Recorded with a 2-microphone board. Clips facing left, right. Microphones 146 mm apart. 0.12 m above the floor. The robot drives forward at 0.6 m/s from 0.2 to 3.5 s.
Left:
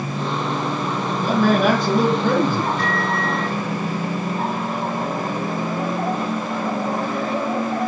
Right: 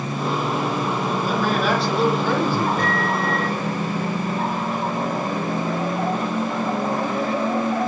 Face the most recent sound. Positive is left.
turn(degrees=-40)  # may be behind; listen again after turning